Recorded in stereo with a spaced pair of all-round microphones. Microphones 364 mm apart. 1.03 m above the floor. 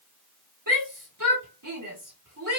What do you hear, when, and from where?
0.7 s a shout: 60° right (ahead or behind), 3 m